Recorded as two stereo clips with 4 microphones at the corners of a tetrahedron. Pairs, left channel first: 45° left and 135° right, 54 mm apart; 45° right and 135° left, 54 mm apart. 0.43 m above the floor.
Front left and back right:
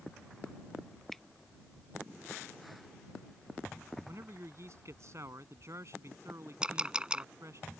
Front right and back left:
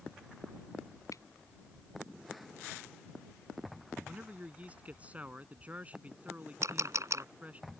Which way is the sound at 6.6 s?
150° left.